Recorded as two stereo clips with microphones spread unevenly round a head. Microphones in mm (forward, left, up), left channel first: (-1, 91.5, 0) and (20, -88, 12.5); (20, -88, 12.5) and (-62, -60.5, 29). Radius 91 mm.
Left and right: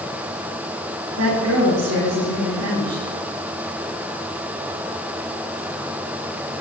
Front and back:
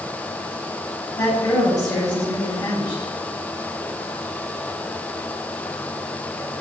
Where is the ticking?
I don't hear ticking.